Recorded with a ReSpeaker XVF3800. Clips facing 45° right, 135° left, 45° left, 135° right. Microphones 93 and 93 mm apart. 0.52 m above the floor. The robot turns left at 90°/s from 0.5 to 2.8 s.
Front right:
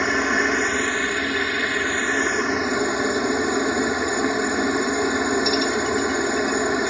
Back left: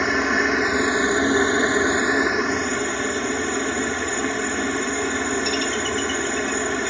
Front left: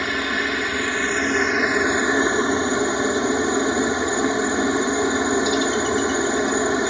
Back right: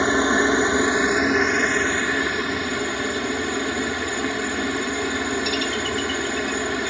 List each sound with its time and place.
0.0 s a helicopter: 135° right; by 6.9 s 15° left